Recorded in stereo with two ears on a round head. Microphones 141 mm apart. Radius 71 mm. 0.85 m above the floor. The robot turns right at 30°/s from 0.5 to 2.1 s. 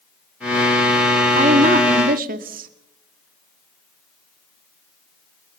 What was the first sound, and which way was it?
A woman speaking, 40° right (ahead or behind).